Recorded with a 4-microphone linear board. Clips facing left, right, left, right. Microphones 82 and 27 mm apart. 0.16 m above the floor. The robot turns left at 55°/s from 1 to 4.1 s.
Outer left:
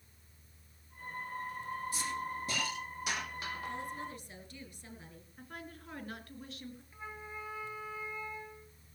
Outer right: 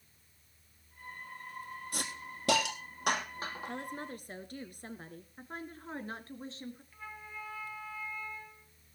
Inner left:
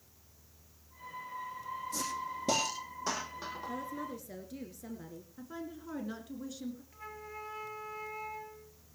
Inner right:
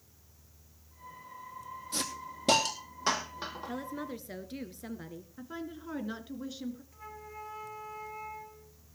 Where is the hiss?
60° right (ahead or behind), 2.5 m; by 3.7 s 20° right (ahead or behind), 2.5 m.